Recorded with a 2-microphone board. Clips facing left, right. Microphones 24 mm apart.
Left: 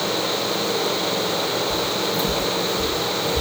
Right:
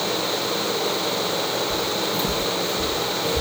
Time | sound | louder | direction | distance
1.7 | footsteps | left 1 dB | 20° right (ahead or behind) | 2.5 m